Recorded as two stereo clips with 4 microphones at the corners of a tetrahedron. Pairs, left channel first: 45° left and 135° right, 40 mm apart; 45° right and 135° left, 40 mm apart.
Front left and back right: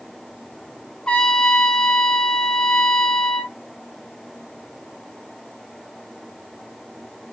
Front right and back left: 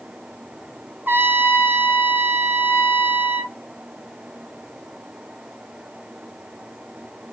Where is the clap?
No clap in this recording.